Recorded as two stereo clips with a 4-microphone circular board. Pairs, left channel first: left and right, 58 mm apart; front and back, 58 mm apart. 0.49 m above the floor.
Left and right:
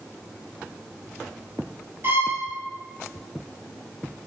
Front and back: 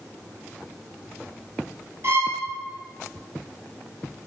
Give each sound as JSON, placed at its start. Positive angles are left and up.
{"t": 2.0, "sound": "a violin", "azimuth_deg": -140, "distance_m": 2.5}